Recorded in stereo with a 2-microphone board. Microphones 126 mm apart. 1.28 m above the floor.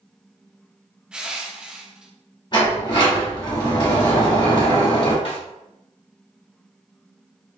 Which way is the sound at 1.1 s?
5° right (ahead or behind).